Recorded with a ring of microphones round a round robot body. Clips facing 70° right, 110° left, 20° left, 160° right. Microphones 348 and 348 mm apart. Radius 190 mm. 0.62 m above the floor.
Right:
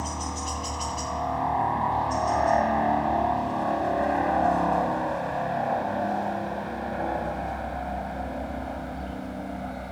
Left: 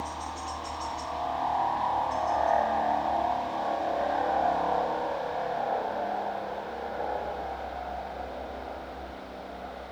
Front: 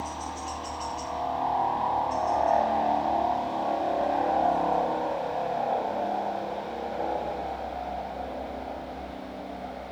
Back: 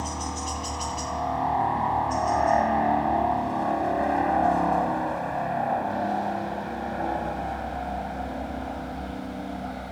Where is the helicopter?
105° right; by 9.9 s 100° right.